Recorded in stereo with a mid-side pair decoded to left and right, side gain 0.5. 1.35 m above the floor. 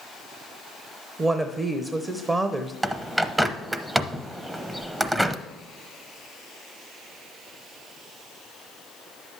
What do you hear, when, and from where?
1.2 s a woman speaking: 30° right, 0.8 m
2.8 s a bird: 20° right, 0.7 m